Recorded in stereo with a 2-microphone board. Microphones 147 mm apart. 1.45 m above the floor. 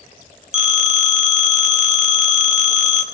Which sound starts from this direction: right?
A phone ringing, at 0.5 s.